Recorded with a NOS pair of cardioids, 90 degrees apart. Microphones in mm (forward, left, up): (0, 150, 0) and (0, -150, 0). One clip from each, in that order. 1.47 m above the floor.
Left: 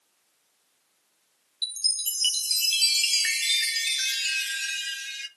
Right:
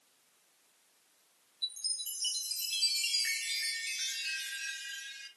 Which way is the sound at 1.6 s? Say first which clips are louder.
Left 9 dB; 65° left.